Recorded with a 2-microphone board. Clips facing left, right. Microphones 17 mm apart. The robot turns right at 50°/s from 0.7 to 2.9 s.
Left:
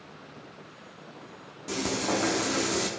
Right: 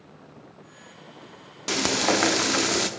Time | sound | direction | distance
1.7 | frying | 100° right | 0.6 m